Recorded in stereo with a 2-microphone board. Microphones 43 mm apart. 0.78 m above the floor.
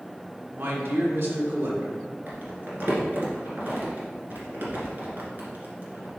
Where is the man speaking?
60° right (ahead or behind), 1.6 m.